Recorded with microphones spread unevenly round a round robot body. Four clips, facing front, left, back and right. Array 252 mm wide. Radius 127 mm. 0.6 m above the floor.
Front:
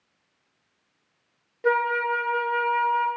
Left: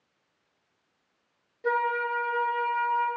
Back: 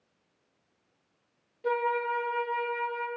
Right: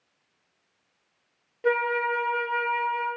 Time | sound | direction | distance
1.6 | a flute | 25° right | 1.1 m